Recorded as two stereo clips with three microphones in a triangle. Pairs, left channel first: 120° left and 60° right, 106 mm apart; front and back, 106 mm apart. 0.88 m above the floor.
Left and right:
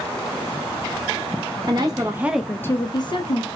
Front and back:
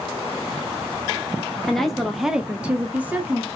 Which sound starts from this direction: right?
A woman speaking, at 1.7 s.